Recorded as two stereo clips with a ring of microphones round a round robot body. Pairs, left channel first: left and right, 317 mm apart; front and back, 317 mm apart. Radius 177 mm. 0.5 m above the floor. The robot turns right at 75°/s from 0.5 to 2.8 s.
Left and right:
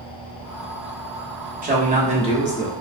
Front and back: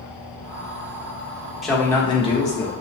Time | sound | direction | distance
1.6 | a man speaking | 90° right | 1.1 m